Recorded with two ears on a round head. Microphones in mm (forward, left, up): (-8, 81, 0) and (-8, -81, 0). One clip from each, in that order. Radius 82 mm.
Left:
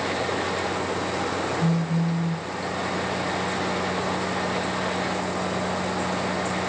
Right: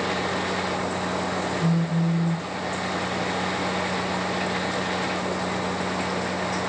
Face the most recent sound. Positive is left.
turn(degrees=50)  # may be behind; listen again after turning